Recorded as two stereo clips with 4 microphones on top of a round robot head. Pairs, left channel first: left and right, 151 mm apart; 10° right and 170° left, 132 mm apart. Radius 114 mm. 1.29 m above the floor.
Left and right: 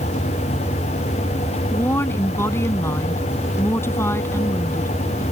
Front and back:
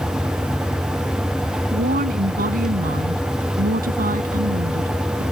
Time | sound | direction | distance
1.7 | a woman speaking | 165° left | ?